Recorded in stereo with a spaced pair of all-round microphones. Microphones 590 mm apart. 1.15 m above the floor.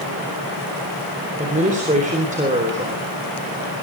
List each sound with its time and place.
1.4 s a woman speaking: 15° right (ahead or behind), 4 m